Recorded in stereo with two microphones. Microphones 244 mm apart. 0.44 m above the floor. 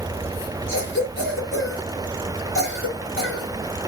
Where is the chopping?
I don't hear chopping.